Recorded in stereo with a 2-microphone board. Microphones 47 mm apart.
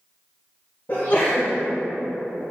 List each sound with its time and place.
0.9 s a sneeze: 45° left (ahead or behind), 1.3 m